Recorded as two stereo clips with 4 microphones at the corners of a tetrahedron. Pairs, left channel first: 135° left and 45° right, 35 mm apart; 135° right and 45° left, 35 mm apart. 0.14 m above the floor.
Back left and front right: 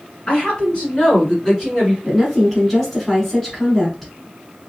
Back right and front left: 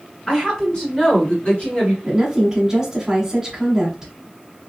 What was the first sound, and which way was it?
A woman speaking, 160° left.